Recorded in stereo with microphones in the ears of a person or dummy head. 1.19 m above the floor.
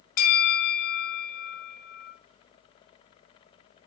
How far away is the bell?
About 0.5 m.